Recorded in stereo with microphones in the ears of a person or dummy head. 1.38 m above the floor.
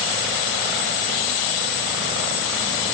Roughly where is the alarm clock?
I don't hear an alarm clock.